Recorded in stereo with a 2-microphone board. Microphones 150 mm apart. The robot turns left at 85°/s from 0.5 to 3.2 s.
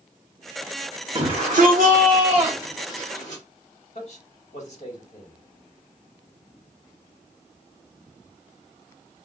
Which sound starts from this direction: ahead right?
A shout, at 1.1 s.